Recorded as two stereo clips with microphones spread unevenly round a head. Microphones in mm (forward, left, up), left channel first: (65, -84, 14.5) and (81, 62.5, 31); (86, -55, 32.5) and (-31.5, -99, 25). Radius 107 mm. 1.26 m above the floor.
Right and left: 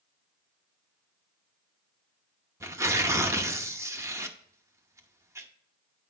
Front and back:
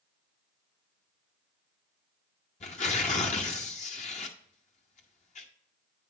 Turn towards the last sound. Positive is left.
turn(degrees=20)